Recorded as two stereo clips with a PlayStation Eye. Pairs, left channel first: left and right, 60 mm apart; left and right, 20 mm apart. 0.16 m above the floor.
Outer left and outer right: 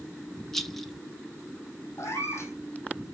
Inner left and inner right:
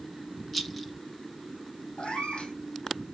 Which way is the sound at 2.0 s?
50° left (ahead or behind).